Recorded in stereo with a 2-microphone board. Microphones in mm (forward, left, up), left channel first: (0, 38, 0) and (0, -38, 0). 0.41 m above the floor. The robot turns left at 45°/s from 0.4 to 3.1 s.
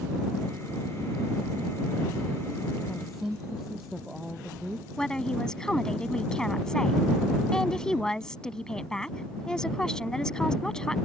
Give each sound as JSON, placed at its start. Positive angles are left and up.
{"t": 2.9, "sound": "a woman speaking", "side_deg": 5}
{"t": 5.0, "sound": "a woman speaking", "side_deg": 10}